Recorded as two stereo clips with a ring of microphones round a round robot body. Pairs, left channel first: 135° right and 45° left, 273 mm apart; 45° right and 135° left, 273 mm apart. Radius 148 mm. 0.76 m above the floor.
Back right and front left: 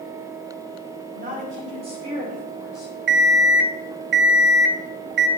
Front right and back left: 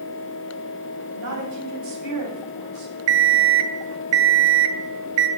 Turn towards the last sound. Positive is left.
turn(degrees=95)